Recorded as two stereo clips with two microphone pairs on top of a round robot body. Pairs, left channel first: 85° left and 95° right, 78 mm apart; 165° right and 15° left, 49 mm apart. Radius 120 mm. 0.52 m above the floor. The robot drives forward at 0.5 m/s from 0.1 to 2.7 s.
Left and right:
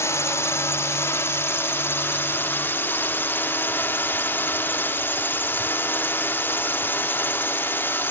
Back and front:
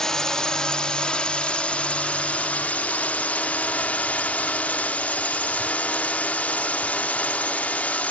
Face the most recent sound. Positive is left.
turn(degrees=140)